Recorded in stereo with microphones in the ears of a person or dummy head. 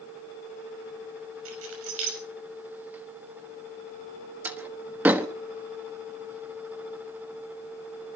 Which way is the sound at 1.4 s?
85° right.